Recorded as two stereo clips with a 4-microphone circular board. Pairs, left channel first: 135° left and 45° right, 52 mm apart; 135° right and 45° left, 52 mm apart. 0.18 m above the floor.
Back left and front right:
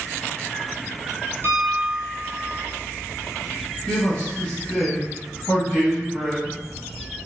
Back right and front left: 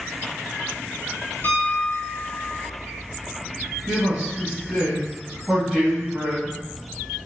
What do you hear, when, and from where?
1.4 s a piano: 85° right, 0.7 m
3.9 s a man speaking: 110° left, 1.7 m